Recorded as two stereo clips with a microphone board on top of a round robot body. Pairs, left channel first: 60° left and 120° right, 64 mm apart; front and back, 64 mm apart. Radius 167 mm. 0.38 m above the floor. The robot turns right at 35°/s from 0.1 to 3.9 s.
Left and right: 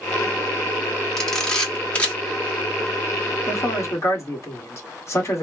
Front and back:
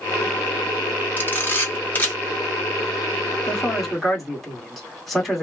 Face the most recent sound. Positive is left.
turn(degrees=90)